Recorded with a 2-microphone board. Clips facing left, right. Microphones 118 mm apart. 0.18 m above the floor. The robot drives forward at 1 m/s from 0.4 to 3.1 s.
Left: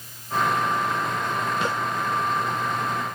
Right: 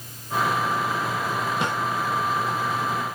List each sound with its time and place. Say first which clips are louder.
1.6 s a snare drum: even; 20° right (ahead or behind), 3.5 m